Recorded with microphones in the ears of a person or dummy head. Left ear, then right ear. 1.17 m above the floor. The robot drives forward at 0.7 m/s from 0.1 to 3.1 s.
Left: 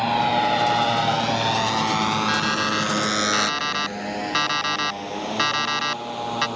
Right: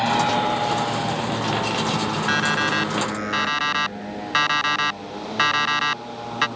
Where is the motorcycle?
Centre (ahead or behind); by 6.6 s 65° left (ahead or behind).